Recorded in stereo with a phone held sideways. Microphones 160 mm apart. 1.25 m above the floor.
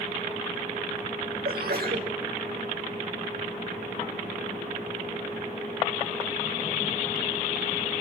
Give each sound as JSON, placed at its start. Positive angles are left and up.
{"t": 1.4, "sound": "a sneeze", "side_deg": -90, "distance_m": 5.0}